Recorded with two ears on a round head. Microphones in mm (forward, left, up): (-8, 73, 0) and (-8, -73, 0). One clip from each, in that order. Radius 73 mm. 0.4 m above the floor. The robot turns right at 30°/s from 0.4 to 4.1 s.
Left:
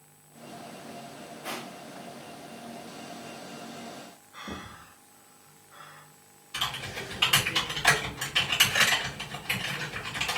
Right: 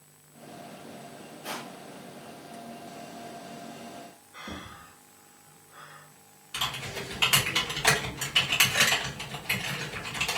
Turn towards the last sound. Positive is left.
turn(degrees=-20)  # may be behind; listen again after turning